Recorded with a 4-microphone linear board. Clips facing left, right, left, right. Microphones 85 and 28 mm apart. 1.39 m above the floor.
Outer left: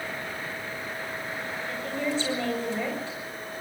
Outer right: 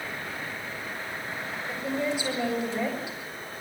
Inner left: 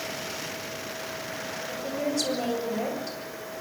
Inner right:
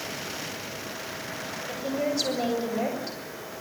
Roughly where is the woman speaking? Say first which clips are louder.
Outer right 1 dB, inner right 2 dB; centre.